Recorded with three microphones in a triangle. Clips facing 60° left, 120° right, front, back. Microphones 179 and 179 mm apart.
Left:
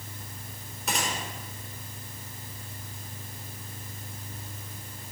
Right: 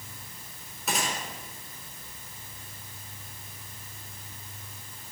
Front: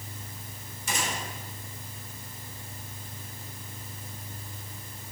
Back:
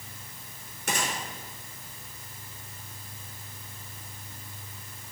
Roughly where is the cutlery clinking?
I don't hear cutlery clinking.